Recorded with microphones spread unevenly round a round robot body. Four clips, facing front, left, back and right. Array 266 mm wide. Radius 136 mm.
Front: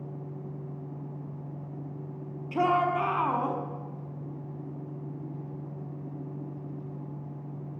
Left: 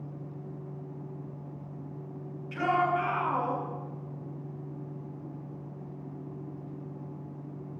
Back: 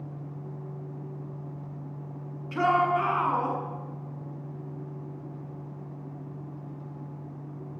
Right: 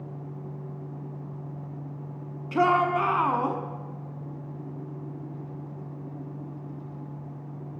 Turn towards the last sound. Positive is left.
turn(degrees=-70)